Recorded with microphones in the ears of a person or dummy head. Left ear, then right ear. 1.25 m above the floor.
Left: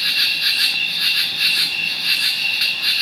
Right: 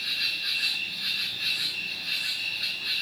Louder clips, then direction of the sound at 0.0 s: Left 11 dB; 60° left (ahead or behind).